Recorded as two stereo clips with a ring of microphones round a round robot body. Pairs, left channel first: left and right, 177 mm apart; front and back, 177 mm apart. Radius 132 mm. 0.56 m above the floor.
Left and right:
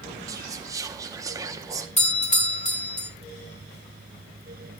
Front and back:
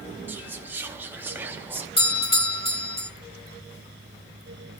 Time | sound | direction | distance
0.3 | whispering | 120° right | 0.6 m
2.0 | a doorbell | 50° left | 2.5 m